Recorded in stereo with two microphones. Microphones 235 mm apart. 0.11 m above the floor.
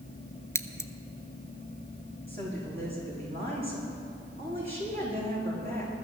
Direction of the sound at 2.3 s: 40° right (ahead or behind).